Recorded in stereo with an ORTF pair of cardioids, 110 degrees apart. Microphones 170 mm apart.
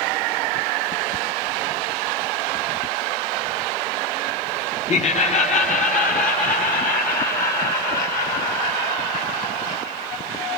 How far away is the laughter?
About 1.0 m.